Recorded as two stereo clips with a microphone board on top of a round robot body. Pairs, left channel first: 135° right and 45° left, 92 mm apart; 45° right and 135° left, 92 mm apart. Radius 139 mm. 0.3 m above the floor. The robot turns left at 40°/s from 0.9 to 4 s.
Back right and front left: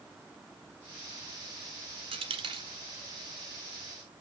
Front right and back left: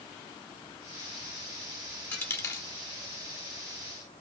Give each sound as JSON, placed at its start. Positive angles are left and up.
{"t": 2.1, "sound": "a dropped coin", "azimuth_deg": 30, "distance_m": 1.5}